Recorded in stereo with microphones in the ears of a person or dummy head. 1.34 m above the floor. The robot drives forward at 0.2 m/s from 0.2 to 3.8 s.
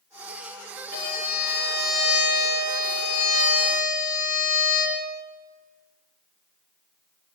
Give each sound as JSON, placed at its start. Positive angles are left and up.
{"t": 0.9, "sound": "a violin", "side_deg": 45, "distance_m": 0.6}